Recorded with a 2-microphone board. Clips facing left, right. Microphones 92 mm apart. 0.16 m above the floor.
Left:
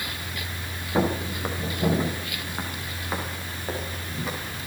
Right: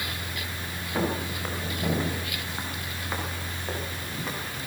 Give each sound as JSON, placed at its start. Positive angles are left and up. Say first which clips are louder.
{"t": 0.9, "sound": "footsteps", "louder": "left 4 dB", "side_deg": 20, "distance_m": 5.0}